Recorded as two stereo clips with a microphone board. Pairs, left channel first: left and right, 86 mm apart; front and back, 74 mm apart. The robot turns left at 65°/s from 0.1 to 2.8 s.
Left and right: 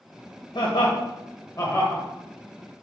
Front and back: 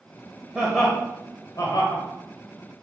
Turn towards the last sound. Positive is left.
turn(degrees=-50)